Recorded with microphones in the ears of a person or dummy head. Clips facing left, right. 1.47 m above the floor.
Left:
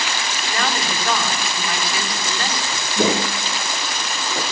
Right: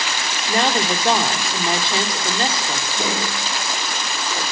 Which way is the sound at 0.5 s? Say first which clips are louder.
Right 6 dB; 25° right (ahead or behind).